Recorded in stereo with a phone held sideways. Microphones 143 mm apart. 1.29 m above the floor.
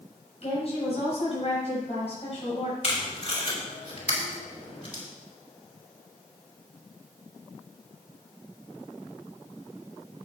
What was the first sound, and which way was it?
A woman speaking, 45° left (ahead or behind).